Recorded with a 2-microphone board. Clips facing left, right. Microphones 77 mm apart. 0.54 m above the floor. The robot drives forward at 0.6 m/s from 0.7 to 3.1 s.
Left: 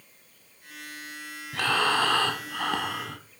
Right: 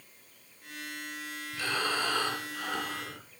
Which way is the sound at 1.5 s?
80° left.